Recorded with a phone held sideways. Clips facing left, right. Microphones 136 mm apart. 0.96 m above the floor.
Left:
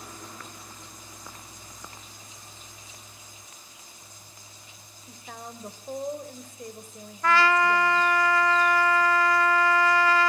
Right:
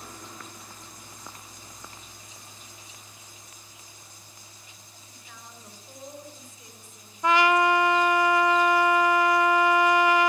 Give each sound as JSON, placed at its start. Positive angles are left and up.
{"t": 5.1, "sound": "a woman speaking", "side_deg": 55, "distance_m": 4.0}
{"t": 7.2, "sound": "a trumpet", "side_deg": -20, "distance_m": 0.7}